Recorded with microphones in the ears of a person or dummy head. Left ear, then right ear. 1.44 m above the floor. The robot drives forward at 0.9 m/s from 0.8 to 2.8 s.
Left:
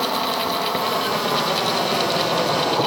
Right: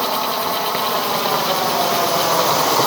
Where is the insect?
25° right (ahead or behind); by 2.9 s 60° right (ahead or behind).